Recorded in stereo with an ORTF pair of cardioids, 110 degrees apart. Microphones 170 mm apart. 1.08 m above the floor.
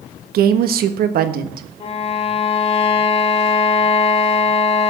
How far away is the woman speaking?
About 1.2 m.